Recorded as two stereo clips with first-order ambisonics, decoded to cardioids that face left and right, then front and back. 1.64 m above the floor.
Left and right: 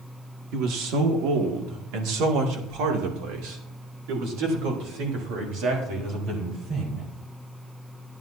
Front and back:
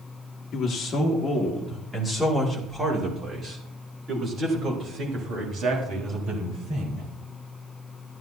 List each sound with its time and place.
0.5 s a man speaking: 60° right, 2 m; by 7.1 s 125° right, 4.5 m